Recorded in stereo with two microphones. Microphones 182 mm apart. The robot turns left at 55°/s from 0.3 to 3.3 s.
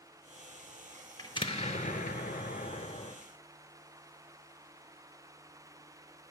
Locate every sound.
1.2 s an explosion: 150° left, 0.6 m; by 3.1 s 45° left, 0.6 m